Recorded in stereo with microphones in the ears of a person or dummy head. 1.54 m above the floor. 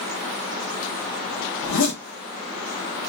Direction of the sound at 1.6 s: 65° left (ahead or behind).